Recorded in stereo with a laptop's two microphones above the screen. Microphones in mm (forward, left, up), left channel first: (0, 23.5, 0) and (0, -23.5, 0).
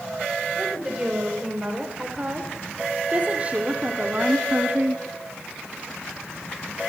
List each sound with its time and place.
0.6 s a woman speaking: 20° right (ahead or behind), 5 m; by 5.0 s 45° right (ahead or behind), 2 m